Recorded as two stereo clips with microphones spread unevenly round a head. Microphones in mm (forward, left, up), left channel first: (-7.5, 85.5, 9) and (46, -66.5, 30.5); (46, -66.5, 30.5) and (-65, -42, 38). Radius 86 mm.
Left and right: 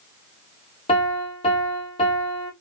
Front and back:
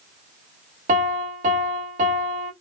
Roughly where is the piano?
Behind.